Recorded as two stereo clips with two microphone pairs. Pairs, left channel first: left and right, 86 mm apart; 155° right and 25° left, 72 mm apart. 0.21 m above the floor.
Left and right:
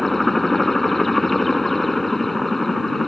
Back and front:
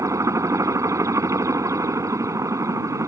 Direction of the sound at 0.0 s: 5° left.